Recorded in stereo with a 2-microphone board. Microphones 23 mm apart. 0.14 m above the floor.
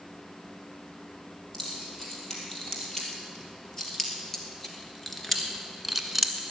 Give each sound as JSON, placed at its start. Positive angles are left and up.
{"t": 1.5, "sound": "keys jangling", "side_deg": 20, "distance_m": 4.0}